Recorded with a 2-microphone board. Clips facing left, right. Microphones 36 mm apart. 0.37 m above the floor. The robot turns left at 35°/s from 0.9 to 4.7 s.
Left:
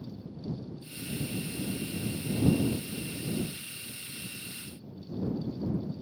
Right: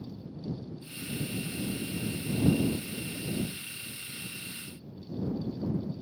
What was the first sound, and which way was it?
Only background noise.